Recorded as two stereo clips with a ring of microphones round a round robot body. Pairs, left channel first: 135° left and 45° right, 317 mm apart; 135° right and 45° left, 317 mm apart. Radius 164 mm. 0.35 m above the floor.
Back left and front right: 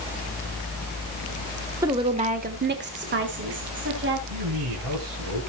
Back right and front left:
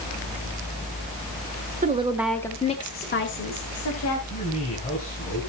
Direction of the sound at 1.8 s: 20° left.